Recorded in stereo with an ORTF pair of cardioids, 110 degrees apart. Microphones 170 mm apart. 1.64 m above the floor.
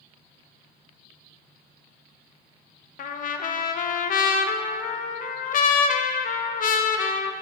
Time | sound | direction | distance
3.0 | a trumpet | 55° left | 0.9 m